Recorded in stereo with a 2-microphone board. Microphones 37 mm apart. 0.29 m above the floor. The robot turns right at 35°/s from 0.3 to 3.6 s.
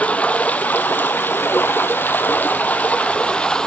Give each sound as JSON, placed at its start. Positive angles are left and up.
{"t": 0.0, "sound": "running water", "azimuth_deg": 45, "distance_m": 0.8}